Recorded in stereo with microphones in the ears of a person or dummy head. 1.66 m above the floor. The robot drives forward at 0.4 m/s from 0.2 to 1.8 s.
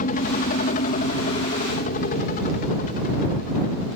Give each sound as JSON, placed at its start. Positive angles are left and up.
{"t": 0.0, "sound": "a helicopter", "side_deg": 45}